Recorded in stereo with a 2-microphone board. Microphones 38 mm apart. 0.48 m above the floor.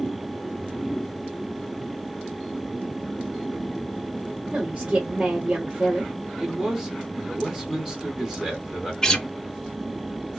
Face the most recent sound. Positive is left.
turn(degrees=15)  # may be behind; listen again after turning